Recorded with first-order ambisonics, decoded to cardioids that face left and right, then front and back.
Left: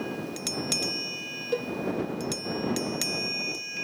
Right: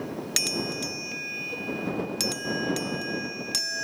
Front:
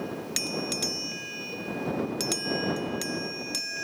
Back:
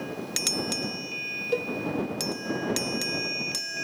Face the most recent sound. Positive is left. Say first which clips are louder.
# left 5 dB, back 9 dB
turn(degrees=145)